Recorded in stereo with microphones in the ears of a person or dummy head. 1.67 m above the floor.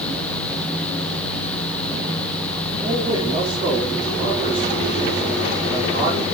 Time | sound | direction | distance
2.8 | a man speaking | 30° right (ahead or behind) | 5.5 m